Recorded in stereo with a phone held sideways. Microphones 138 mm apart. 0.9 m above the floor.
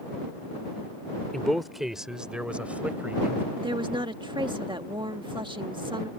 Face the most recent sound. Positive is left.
turn(degrees=-35)  # may be behind; listen again after turning